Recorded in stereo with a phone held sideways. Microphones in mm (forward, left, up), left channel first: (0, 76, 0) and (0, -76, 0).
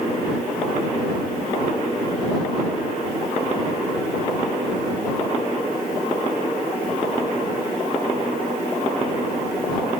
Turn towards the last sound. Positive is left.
No sound to turn to.